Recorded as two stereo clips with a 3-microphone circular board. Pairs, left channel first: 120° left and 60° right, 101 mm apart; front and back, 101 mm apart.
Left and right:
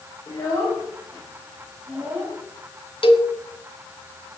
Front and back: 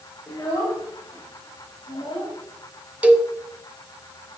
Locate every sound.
0.3 s a child speaking: 65° left, 2.5 m; by 2.4 s 10° left, 4 m
3.0 s a cowbell: 105° left, 0.9 m